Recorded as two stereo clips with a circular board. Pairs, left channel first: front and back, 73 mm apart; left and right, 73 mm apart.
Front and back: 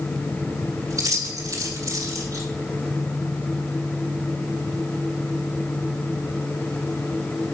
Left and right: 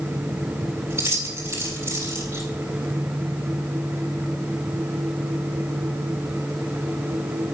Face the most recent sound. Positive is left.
turn(degrees=-145)